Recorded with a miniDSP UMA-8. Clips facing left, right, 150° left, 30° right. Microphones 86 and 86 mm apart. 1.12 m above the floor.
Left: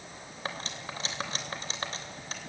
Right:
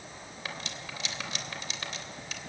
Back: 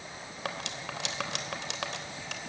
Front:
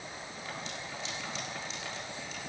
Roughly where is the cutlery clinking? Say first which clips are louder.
Left 3 dB, back 5 dB; behind left.